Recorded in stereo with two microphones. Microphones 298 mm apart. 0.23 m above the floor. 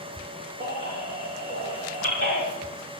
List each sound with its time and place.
0.6 s a baby crying: 40° right (ahead or behind), 8.5 m